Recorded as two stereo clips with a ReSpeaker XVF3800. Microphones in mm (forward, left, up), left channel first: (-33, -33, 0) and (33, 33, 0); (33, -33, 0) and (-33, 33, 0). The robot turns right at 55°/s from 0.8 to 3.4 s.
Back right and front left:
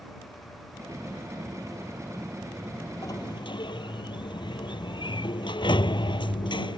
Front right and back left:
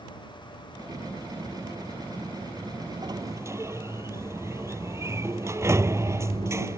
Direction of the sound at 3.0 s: 175° left.